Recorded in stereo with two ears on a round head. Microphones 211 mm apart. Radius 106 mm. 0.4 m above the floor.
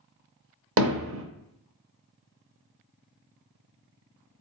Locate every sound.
0.8 s hammering: 60° right (ahead or behind), 0.6 m